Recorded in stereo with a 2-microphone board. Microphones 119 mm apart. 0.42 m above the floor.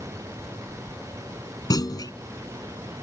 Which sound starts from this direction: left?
A clunk, at 1.7 s.